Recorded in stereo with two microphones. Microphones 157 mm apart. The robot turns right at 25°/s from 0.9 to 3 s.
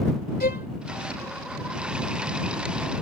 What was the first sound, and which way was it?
A violin, 70° left (ahead or behind).